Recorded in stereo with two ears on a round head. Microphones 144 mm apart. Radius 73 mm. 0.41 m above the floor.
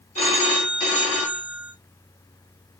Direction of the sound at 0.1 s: 40° left (ahead or behind).